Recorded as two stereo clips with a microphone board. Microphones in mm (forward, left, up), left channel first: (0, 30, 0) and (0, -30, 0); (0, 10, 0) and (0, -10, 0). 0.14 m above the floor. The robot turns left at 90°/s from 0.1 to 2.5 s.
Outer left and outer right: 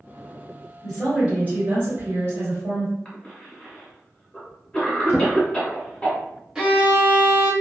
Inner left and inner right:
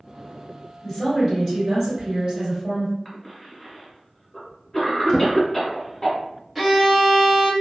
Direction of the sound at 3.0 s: 20° left (ahead or behind).